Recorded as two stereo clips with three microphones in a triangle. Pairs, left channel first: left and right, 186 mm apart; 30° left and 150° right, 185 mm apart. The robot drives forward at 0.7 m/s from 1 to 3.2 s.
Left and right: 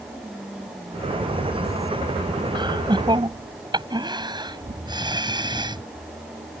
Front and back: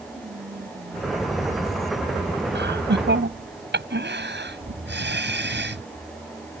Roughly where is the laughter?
Behind right.